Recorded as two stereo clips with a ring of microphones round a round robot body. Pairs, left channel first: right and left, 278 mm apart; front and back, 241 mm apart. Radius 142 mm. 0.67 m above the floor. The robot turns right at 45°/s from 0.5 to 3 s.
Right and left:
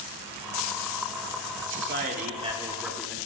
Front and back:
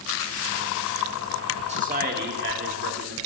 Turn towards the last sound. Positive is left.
turn(degrees=180)